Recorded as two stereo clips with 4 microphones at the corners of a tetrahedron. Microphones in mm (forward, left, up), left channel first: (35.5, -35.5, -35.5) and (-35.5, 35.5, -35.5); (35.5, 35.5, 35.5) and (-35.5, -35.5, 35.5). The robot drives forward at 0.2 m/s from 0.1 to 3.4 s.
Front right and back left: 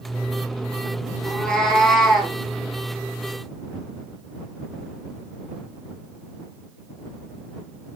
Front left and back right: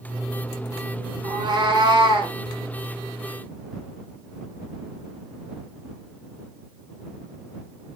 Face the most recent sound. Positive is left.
turn(degrees=-145)